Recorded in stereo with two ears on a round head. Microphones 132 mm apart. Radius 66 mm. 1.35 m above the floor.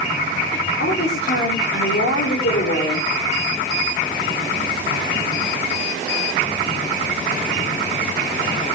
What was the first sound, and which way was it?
A woman speaking, 85° left.